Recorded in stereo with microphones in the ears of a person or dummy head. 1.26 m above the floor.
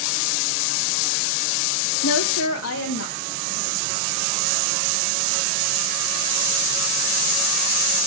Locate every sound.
2.0 s a woman speaking: 80° left, 0.8 m; by 4.0 s 60° left (ahead or behind), 3 m